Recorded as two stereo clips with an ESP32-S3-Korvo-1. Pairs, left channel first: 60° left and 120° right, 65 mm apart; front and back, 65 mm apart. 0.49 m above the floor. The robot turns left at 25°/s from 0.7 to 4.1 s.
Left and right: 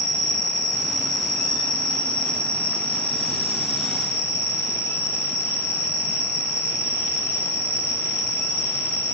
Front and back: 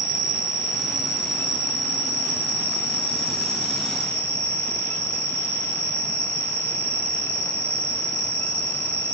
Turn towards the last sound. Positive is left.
turn(degrees=45)